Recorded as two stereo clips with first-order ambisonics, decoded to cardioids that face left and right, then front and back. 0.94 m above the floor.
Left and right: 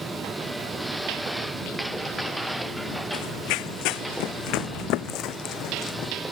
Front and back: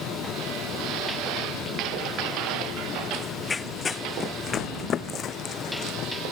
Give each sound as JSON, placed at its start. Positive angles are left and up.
{"t": 3.1, "sound": "running footsteps", "azimuth_deg": 80}